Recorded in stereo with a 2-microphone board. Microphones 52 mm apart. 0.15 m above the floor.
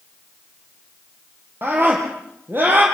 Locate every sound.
1.6 s a scream: 45° right (ahead or behind), 4.5 m